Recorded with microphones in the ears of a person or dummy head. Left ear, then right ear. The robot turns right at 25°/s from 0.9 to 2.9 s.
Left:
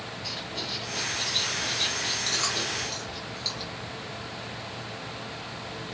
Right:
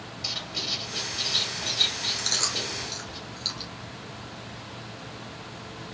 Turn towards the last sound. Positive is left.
turn(degrees=-25)  # may be behind; listen again after turning